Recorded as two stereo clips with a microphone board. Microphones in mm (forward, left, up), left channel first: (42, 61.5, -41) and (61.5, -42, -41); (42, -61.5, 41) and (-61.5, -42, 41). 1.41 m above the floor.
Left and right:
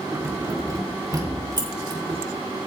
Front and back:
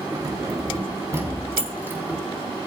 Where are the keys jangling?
145° right, 2.5 m; by 2.2 s 120° right, 3 m.